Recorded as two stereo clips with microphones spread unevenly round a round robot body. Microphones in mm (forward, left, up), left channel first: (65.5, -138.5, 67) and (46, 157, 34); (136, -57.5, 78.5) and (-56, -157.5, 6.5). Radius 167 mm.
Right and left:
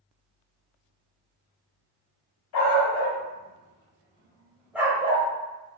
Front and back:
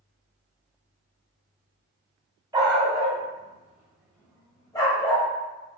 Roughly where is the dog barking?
Right.